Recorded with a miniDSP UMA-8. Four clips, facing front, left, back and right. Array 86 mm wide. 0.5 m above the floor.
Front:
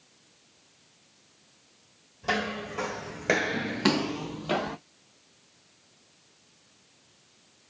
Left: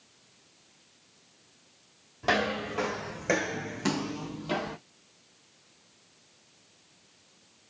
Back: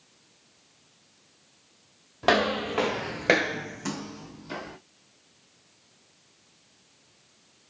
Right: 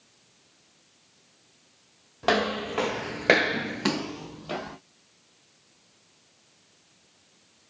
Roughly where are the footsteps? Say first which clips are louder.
Right 3 dB, back 7 dB; behind right.